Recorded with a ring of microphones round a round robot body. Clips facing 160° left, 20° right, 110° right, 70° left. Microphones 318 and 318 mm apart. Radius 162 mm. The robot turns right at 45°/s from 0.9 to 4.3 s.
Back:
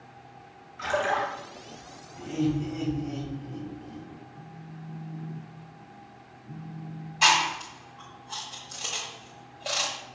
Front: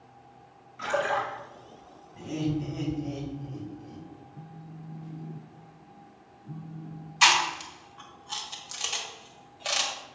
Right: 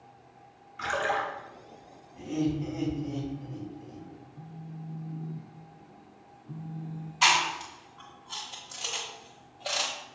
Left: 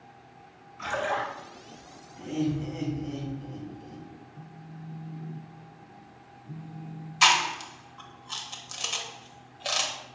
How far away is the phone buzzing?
About 0.6 m.